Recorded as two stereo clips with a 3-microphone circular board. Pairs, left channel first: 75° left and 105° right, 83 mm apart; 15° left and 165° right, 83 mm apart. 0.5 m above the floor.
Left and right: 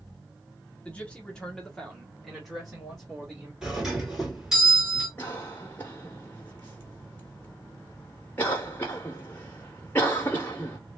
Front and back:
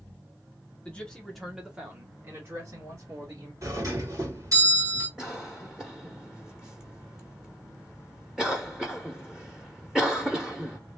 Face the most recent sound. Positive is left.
turn(degrees=115)